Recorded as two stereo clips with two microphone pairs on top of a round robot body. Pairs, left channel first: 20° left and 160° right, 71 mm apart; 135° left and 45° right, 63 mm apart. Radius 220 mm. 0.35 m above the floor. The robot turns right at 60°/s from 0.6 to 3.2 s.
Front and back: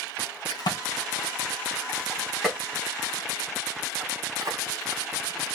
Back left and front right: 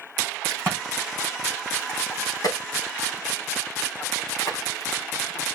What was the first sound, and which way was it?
A crack, 15° left.